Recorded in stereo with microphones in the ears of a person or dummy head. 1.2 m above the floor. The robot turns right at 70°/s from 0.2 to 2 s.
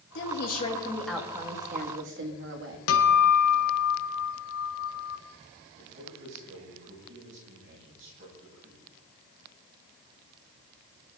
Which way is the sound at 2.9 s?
75° left (ahead or behind).